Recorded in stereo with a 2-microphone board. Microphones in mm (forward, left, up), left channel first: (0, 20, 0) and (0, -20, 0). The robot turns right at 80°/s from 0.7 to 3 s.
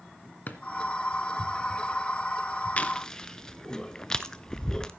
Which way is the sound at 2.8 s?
35° left (ahead or behind).